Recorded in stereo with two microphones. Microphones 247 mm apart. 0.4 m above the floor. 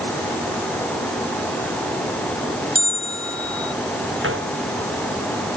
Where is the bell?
60° left (ahead or behind).